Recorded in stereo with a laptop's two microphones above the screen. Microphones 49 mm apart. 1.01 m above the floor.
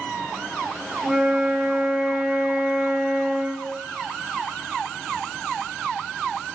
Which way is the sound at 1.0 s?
25° right (ahead or behind).